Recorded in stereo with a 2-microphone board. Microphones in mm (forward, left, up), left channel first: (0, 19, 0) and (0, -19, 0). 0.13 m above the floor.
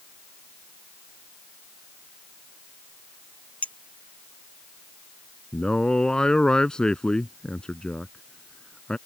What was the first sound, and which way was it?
A clink, 40° left (ahead or behind).